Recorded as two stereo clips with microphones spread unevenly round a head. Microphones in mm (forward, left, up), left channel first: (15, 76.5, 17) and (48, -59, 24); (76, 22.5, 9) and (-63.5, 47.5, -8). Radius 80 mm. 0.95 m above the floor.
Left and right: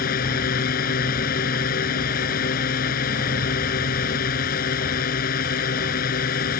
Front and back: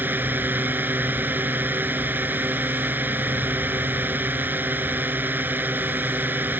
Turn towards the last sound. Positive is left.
turn(degrees=90)